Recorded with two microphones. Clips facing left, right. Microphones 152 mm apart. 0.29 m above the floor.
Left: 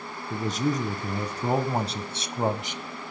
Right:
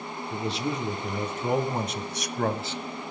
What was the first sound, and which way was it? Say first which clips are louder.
A man speaking: left 3 dB; 45° left (ahead or behind).